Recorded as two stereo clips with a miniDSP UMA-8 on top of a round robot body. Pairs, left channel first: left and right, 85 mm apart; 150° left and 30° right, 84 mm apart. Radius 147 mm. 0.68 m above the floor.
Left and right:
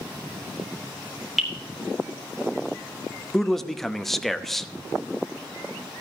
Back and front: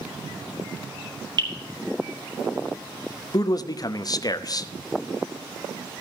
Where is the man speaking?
175° left, 1.0 m.